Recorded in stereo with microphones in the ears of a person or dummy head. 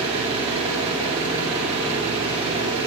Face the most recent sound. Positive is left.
turn(degrees=-35)  # may be behind; listen again after turning